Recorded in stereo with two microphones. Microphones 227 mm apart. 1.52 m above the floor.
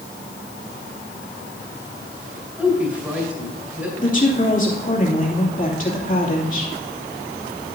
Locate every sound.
2.6 s a woman speaking: 5° right (ahead or behind), 3.5 m
4.0 s a woman speaking: 35° left (ahead or behind), 2.5 m